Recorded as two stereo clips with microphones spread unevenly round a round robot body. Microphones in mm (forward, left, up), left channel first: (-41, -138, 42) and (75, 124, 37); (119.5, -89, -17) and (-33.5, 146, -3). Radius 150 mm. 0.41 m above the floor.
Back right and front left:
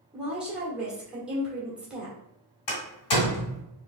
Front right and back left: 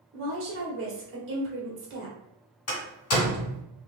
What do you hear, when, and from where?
0.1 s a woman speaking: 150° left, 1.5 m
2.7 s a door slam: 100° right, 1.9 m